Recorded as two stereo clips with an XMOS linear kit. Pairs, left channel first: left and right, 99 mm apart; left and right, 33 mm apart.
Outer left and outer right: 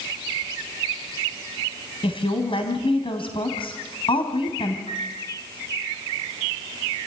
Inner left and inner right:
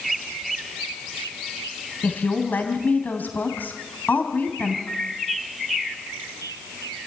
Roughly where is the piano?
Left.